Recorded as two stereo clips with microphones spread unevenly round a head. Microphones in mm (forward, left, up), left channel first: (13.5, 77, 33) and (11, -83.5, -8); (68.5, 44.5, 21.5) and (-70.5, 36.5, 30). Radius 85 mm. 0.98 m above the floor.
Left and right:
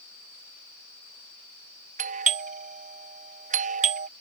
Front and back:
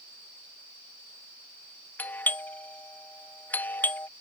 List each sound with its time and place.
2.0 s a doorbell: 70° right